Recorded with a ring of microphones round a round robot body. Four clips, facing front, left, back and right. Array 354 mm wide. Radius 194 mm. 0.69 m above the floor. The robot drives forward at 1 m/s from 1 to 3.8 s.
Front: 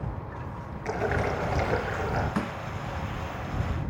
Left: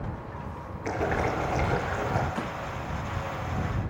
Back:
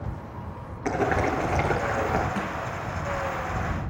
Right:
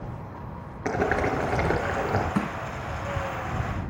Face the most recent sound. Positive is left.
turn(degrees=-95)